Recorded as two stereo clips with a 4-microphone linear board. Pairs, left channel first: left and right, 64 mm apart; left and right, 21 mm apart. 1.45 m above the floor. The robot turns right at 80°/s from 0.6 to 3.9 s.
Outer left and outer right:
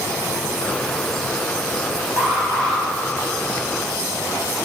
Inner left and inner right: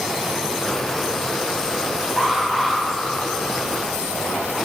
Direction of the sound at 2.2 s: 150° right.